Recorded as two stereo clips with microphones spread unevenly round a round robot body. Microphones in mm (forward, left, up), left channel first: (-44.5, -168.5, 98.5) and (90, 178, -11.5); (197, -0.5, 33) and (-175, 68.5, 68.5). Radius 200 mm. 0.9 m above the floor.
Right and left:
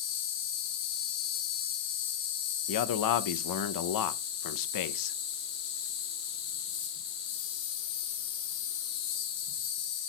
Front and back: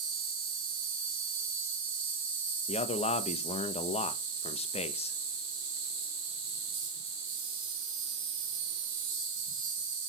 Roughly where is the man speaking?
Right.